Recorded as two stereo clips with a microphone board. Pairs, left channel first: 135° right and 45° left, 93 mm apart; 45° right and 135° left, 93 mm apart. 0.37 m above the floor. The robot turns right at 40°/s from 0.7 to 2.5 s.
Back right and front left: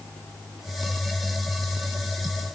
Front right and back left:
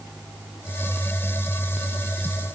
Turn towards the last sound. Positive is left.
No sound to turn to.